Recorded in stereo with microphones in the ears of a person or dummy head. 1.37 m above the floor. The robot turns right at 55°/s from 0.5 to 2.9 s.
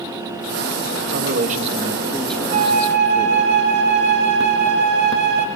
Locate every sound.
1.1 s a man speaking: 65° right, 1.9 m; by 3.5 s 35° left, 1.9 m
2.5 s a flute: 40° right (ahead or behind), 2 m; by 5.5 s 60° right (ahead or behind), 2 m